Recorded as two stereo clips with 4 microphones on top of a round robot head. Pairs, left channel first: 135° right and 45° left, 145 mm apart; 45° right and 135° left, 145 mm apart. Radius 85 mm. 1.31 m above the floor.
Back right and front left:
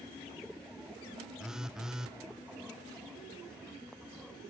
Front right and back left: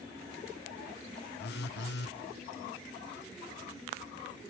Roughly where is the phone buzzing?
Ahead right.